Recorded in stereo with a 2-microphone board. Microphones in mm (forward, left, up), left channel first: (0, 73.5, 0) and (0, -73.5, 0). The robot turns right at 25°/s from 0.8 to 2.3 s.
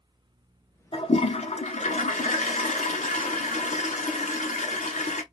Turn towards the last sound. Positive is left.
turn(degrees=85)